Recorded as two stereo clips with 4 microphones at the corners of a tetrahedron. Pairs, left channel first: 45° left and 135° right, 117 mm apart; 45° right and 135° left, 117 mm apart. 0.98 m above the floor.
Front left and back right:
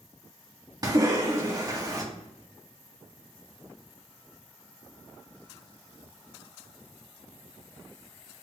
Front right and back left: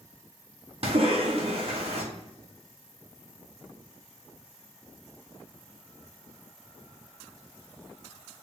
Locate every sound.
0.8 s a cough: 170° left, 1.6 m